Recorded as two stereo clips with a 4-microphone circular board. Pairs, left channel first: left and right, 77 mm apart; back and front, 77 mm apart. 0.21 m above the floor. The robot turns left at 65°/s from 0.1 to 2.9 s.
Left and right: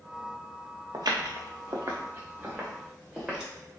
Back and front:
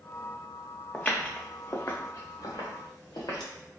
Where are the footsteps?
110° right, 0.6 m; by 3.5 s 170° right, 1.8 m.